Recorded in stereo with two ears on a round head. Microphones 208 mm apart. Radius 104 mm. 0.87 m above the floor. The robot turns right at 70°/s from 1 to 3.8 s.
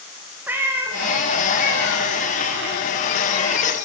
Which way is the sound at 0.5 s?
10° right (ahead or behind).